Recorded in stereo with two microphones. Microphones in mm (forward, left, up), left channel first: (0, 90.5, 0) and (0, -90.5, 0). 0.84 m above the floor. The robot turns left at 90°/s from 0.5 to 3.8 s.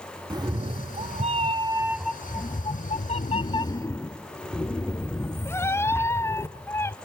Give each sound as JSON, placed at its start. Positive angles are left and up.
{"t": 0.3, "sound": "a cat meowing", "azimuth_deg": -40, "distance_m": 0.6}